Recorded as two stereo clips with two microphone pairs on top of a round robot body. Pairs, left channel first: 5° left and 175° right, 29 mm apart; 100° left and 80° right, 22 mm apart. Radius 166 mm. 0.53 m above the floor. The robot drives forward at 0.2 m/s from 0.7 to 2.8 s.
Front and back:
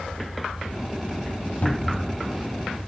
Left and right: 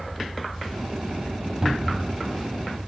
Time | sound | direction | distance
1.6 | a cupboard door | 30° right | 1.6 m